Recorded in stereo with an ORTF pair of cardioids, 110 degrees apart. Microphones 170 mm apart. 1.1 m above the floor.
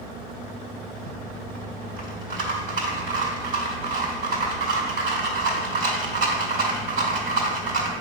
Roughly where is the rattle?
Right.